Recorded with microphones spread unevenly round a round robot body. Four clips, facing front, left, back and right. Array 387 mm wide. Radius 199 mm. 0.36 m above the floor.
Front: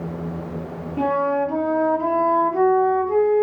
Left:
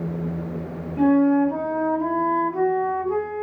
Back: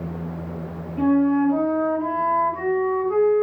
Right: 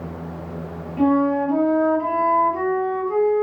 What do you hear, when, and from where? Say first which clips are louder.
1.0 s a flute: left 1 dB, back 2 dB; straight ahead, 3 m